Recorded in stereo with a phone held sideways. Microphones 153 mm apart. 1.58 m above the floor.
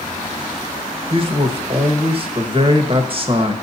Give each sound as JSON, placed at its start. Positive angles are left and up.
{"t": 1.1, "sound": "a man speaking", "side_deg": -40, "distance_m": 1.3}